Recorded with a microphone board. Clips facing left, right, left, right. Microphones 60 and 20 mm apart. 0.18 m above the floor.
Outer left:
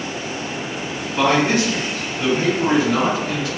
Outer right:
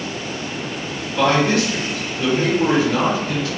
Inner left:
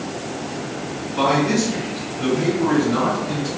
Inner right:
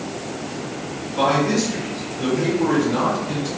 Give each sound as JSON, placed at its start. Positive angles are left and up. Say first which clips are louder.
{"t": 1.1, "sound": "a man speaking", "louder": "even, even", "side_deg": 30, "distance_m": 2.0}